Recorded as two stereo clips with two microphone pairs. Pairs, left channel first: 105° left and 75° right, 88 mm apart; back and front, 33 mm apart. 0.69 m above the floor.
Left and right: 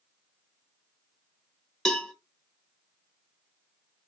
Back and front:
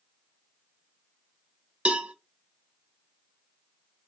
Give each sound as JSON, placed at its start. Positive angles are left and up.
{"t": 1.9, "sound": "a cowbell", "azimuth_deg": 20, "distance_m": 1.1}